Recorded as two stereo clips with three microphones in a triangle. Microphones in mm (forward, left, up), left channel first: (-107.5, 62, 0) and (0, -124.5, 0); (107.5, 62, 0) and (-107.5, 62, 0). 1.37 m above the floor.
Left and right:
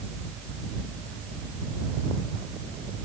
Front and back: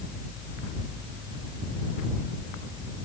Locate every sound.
Only background noise.